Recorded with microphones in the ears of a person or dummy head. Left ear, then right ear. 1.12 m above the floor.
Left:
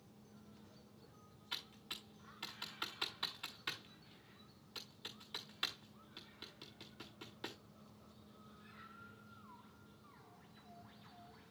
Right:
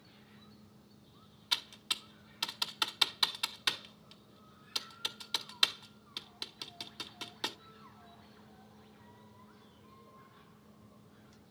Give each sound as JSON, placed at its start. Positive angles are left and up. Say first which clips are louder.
{"t": 1.5, "sound": "typing on a keyboard", "louder": "right 12 dB", "side_deg": -45, "distance_m": 1.1}